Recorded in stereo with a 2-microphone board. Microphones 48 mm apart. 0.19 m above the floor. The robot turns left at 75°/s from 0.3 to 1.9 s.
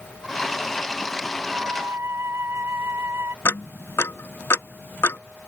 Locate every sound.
1.5 s a flute: 25° right (ahead or behind); by 3.4 s 55° right (ahead or behind)
3.5 s ticking: 60° left (ahead or behind)